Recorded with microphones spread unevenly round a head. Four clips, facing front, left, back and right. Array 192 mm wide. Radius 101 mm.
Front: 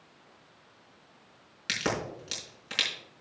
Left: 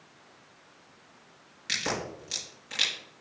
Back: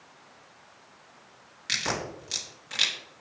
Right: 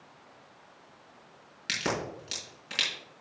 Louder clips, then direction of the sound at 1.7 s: Right 1 dB, front 1 dB; 55° right.